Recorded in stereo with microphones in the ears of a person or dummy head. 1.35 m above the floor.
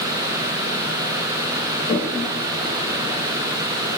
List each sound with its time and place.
1.9 s a toilet flushing: 15° left (ahead or behind), 0.7 m